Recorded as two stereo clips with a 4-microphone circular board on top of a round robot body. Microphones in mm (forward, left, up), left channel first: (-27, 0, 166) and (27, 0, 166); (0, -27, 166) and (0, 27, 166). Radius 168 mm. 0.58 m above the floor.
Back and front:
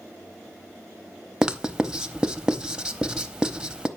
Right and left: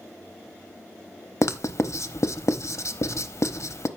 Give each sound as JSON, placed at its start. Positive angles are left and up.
{"t": 1.4, "sound": "writing", "azimuth_deg": -75, "distance_m": 1.1}